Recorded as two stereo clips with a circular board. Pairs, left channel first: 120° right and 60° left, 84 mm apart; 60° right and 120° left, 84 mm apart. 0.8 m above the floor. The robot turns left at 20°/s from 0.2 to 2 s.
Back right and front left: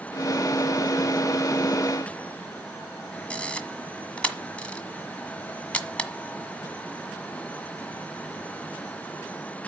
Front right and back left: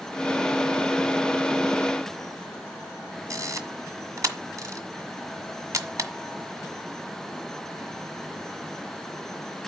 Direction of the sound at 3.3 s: 165° left.